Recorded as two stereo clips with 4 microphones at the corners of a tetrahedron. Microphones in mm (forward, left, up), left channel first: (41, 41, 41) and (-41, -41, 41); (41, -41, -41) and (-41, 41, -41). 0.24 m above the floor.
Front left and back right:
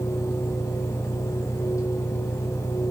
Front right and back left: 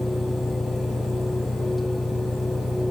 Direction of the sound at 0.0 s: 30° right.